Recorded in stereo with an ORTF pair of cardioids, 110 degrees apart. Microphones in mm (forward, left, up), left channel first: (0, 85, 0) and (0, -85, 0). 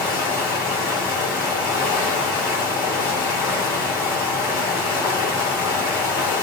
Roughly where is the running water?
Ahead left.